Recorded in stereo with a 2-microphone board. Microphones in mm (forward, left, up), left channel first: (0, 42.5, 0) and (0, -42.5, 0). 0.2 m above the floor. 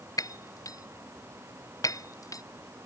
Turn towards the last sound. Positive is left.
turn(degrees=45)  # may be behind; listen again after turning